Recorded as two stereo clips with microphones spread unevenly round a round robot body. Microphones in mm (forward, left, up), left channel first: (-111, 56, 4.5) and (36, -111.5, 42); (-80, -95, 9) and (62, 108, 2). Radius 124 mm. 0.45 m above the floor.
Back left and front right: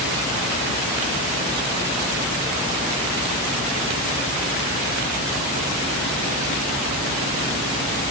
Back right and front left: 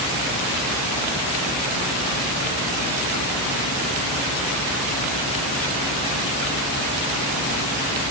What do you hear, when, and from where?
Only background noise.